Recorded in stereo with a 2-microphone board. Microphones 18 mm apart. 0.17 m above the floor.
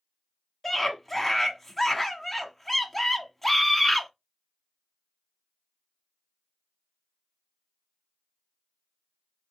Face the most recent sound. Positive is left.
turn(degrees=10)  # may be behind; listen again after turning